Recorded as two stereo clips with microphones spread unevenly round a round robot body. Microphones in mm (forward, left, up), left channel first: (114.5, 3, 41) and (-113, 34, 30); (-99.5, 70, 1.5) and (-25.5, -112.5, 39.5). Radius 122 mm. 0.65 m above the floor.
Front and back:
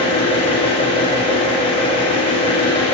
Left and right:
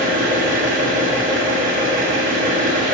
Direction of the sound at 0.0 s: 60° right.